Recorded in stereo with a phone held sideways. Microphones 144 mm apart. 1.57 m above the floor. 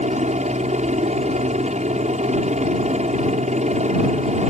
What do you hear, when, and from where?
0.0 s a helicopter: 55° right (ahead or behind)